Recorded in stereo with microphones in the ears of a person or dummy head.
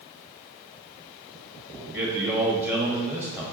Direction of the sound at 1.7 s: Centre (ahead or behind).